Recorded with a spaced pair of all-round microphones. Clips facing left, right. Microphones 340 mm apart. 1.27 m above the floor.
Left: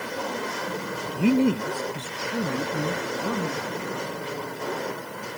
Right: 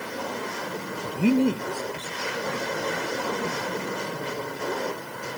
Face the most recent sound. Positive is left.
turn(degrees=65)  # may be behind; listen again after turning